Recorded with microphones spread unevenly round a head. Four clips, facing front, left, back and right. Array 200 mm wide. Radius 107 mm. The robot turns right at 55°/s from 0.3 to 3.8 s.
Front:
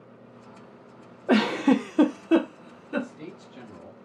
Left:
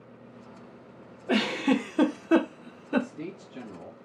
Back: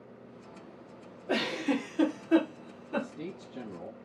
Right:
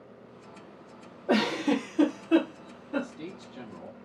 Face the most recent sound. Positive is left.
turn(degrees=155)